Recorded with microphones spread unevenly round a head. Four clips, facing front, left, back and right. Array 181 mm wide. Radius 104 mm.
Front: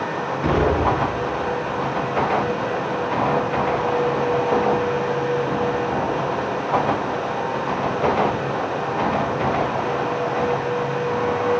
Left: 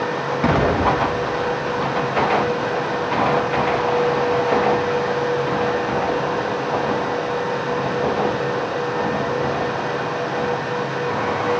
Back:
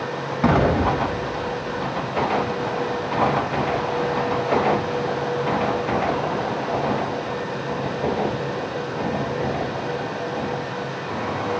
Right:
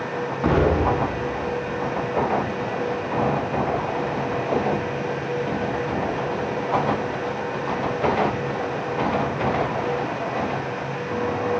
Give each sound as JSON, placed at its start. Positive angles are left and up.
{"t": 0.4, "sound": "an explosion", "azimuth_deg": 160, "distance_m": 5.5}